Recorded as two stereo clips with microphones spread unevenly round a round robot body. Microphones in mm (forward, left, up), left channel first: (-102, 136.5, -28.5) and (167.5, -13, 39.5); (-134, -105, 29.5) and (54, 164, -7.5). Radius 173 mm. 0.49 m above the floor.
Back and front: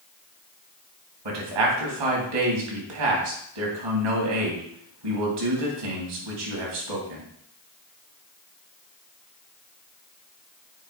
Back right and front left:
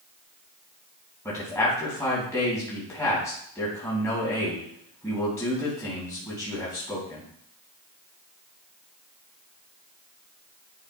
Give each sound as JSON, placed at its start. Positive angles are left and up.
{"t": 1.2, "sound": "a man speaking", "azimuth_deg": -40, "distance_m": 3.5}